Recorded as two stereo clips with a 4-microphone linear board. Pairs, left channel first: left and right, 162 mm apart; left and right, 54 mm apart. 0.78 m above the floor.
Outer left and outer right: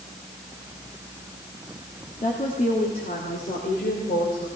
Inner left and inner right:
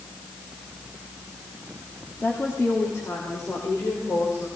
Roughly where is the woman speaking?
Left.